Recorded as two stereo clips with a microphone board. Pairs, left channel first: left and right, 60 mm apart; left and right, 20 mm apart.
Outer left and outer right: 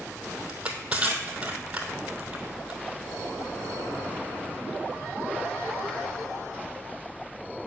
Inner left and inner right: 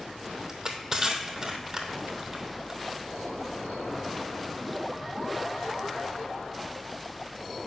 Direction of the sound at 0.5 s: 25° right (ahead or behind).